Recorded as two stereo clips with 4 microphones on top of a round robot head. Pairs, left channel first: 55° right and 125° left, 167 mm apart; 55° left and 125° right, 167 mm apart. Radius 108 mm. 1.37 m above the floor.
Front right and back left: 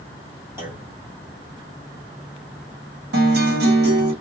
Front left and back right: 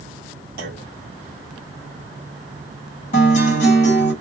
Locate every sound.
0.6 s a clunk: 160° right, 1.0 m
3.1 s a guitar: 100° left, 1.4 m